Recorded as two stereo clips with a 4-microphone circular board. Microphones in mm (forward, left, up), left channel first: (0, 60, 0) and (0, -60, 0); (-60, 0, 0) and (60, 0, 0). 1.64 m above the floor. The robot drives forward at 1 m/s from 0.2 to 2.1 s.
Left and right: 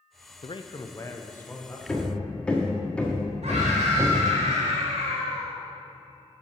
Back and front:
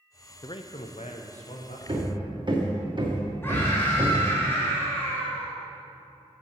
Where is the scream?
110° right, 4 m.